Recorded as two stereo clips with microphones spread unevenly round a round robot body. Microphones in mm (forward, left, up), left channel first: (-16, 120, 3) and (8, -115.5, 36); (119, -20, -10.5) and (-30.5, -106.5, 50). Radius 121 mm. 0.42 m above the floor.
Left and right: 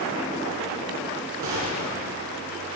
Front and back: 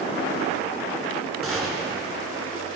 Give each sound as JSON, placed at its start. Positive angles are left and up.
{"t": 1.4, "sound": "a gunshot", "azimuth_deg": -65, "distance_m": 2.0}